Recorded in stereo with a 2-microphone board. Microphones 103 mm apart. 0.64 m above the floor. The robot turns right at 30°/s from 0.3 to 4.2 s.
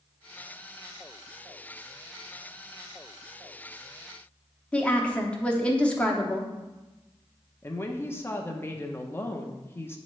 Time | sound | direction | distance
4.7 | a woman speaking | 10° left (ahead or behind) | 0.9 m
7.6 | a woman speaking | 25° left (ahead or behind) | 0.7 m